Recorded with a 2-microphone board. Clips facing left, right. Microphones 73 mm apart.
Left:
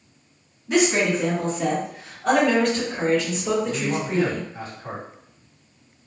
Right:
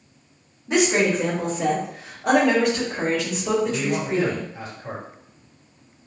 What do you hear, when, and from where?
0.7 s a woman speaking: 15° right (ahead or behind), 1.0 m; by 4.5 s centre (ahead or behind), 1.9 m
3.6 s a man speaking: 35° left (ahead or behind), 1.7 m